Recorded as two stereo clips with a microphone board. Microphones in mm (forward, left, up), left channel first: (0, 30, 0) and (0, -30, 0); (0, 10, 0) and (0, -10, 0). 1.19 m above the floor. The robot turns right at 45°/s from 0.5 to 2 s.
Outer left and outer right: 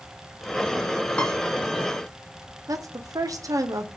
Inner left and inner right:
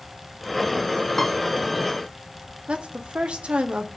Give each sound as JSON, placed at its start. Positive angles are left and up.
{"t": 1.2, "sound": "a piano", "side_deg": 20, "distance_m": 0.7}
{"t": 2.7, "sound": "a woman speaking", "side_deg": -70, "distance_m": 0.7}